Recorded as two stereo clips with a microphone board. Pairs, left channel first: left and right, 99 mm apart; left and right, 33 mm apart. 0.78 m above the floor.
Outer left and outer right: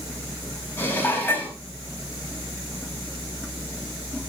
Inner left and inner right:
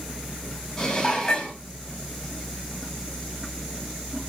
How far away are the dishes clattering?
About 4 m.